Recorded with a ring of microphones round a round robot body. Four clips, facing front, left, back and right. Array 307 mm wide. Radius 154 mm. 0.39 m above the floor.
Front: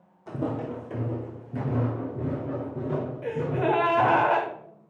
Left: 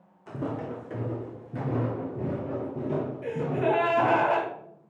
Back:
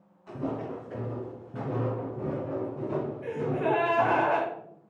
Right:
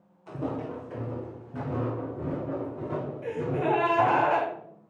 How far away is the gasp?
About 1.5 m.